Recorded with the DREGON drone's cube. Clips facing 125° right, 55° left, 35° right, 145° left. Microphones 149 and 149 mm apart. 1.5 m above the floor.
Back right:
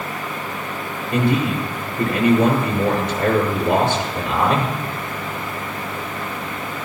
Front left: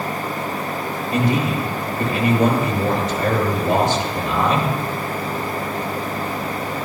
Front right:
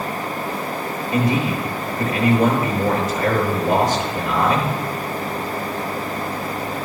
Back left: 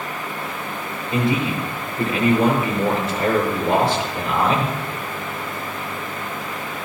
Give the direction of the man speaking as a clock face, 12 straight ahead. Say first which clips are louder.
Back right 1 dB, front right 1 dB; 5 o'clock.